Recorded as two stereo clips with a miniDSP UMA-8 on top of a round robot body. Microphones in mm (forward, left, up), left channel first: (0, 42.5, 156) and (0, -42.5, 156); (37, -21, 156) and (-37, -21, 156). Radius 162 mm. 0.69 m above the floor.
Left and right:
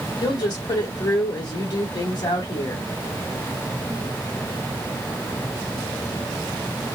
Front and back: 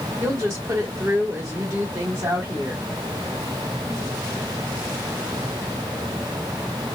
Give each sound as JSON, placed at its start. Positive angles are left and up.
{"t": 0.2, "sound": "a woman speaking", "azimuth_deg": 130, "distance_m": 3.0}